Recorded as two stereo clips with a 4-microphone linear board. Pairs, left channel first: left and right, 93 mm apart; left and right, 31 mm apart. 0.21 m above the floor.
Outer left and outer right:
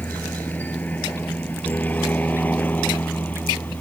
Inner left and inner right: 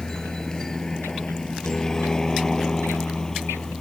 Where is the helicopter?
20° left (ahead or behind).